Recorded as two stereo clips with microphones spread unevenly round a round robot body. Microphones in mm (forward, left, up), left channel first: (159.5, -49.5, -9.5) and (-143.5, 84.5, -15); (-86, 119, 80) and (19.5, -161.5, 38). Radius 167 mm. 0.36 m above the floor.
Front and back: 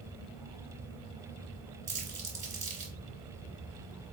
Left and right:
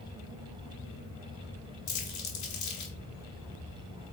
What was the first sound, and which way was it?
Crumpling, 90° left.